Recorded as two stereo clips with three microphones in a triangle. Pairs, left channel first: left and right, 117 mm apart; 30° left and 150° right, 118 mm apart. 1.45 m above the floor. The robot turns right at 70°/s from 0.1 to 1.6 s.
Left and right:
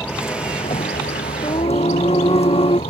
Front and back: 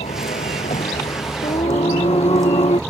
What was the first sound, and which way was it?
A vehicle, 10° left.